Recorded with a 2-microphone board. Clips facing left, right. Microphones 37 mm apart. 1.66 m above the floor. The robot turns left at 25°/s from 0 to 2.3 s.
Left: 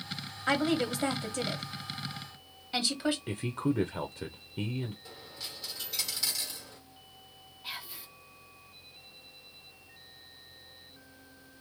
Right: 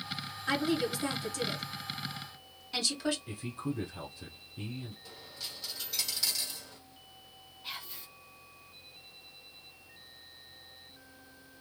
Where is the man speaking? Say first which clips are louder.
Left 6 dB; 50° left (ahead or behind), 0.6 m.